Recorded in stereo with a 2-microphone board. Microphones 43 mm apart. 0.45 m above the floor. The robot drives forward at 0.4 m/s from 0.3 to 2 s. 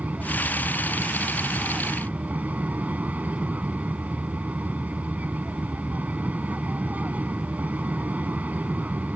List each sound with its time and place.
0.0 s an aircraft: 40° right (ahead or behind)